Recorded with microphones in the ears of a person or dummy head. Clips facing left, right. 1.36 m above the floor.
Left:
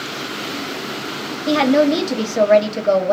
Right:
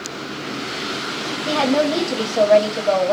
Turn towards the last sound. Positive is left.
turn(degrees=25)  # may be behind; listen again after turning